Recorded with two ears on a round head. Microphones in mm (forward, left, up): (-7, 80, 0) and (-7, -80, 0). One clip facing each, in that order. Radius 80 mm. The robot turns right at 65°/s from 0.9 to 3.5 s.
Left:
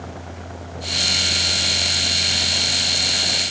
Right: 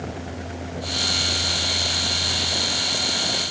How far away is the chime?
I don't hear a chime.